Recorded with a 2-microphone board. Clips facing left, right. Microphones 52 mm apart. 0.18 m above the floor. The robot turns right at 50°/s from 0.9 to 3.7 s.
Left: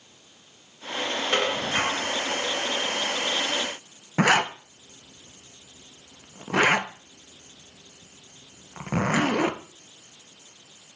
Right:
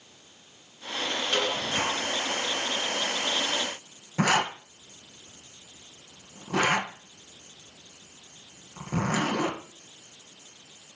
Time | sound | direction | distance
1.3 | dishes clattering | 30° left | 1.7 m
4.2 | a zipper | 45° left (ahead or behind) | 1.1 m